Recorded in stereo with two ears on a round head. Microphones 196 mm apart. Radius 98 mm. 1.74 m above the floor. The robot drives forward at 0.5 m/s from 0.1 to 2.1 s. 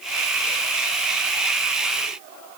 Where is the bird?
I don't hear a bird.